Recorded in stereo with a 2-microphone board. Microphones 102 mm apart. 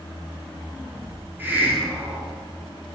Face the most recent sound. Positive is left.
turn(degrees=-20)  # may be behind; listen again after turning